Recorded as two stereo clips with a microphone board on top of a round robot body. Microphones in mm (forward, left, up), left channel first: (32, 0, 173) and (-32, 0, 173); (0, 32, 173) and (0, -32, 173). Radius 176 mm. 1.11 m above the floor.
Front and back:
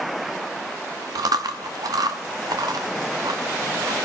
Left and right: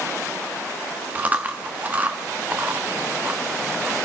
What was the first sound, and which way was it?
Chewing, 155° right.